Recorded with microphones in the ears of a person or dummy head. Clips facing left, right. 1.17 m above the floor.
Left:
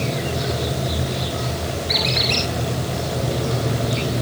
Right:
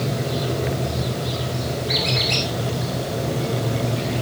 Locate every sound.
1.9 s a squeak: centre (ahead or behind), 4 m